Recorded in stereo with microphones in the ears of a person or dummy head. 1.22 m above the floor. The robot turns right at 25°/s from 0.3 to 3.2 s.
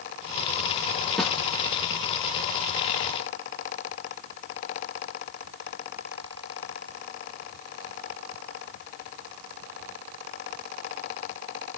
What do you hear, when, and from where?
1.2 s a snare drum: 5° left (ahead or behind), 2 m; by 1.3 s centre (ahead or behind), 2 m